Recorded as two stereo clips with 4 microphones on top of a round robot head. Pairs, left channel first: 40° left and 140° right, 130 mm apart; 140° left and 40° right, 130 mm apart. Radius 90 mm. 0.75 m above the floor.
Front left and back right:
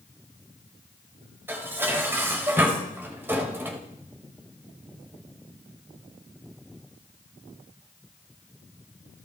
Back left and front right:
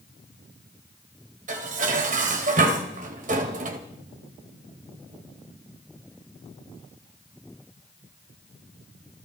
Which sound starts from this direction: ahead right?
Dishes clattering, at 1.5 s.